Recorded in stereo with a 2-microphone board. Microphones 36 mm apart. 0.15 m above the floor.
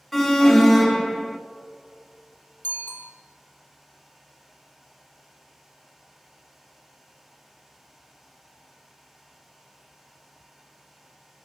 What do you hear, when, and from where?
0.1 s an alarm: 5° left (ahead or behind), 1.0 m
2.6 s a bicycle bell: 55° left (ahead or behind), 4 m